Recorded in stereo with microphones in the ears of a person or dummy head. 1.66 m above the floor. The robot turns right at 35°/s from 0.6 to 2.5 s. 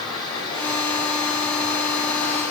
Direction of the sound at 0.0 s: 25° left.